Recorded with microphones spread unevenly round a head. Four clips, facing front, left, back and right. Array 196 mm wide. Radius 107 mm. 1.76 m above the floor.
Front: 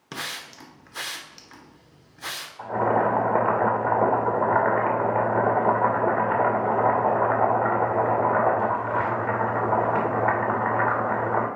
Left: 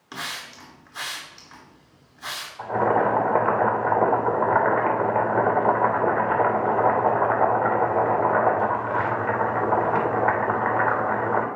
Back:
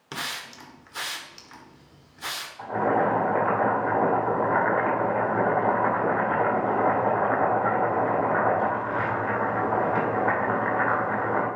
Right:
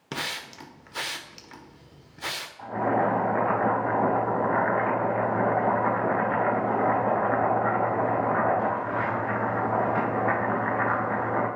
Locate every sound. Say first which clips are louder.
0.1 s a hiss: right 1 dB, back 1 dB; 85° right, 1.1 m
2.6 s boiling: left 4 dB, front 1 dB; 75° left, 2.5 m